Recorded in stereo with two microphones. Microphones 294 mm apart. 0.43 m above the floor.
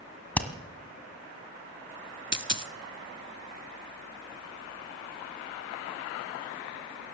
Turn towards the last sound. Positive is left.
turn(degrees=-40)  # may be behind; listen again after turning